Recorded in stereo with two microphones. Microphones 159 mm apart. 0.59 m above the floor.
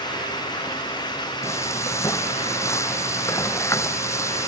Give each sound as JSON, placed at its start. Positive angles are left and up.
{"t": 1.4, "sound": "frying", "side_deg": 20}